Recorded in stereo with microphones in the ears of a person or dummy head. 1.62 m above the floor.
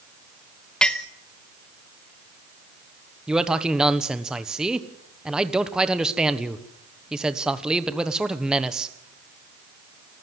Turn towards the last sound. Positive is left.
turn(degrees=-5)  # may be behind; listen again after turning